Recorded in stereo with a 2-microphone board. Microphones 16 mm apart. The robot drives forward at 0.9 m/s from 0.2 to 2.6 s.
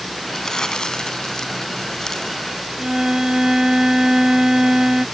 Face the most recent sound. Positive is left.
turn(degrees=-50)  # may be behind; listen again after turning